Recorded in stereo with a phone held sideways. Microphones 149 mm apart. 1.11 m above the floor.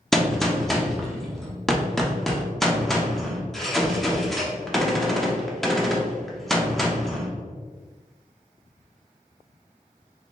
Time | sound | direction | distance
0.1 | a gunshot | centre (ahead or behind) | 0.7 m